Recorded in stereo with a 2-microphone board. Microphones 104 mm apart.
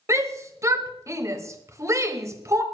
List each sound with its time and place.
0.1 s a shout: 30° right (ahead or behind), 1.6 m